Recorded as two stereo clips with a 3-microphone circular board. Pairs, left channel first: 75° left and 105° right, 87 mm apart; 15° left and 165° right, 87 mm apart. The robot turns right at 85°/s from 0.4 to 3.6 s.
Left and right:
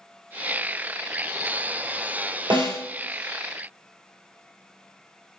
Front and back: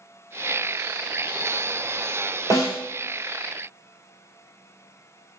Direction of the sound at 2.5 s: 120° right.